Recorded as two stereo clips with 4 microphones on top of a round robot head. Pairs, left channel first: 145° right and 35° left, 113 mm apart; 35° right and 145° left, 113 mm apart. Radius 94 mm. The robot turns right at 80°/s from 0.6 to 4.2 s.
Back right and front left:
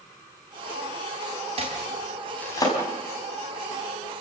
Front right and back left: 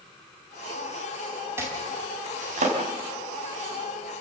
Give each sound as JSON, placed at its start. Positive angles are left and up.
{"t": 1.6, "sound": "chopping", "azimuth_deg": 70, "distance_m": 4.5}